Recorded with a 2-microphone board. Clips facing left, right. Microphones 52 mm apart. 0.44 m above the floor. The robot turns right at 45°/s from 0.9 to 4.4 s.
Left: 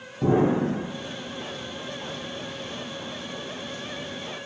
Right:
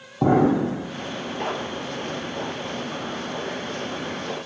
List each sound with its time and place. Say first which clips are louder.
0.2 s an explosion: right 3 dB; 65° right (ahead or behind), 0.8 m